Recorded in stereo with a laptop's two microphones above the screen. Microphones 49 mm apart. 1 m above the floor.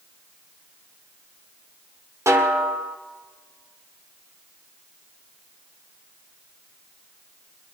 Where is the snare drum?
75° right (ahead or behind), 1.2 m.